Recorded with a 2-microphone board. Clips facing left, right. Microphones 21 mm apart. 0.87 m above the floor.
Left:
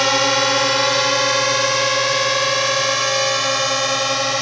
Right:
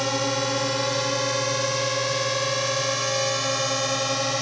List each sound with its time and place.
0.0 s a drone: 45° left (ahead or behind); by 4.4 s 25° left (ahead or behind)